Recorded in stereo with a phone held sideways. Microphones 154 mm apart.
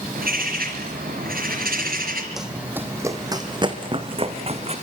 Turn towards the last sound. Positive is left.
turn(degrees=-45)  # may be behind; listen again after turning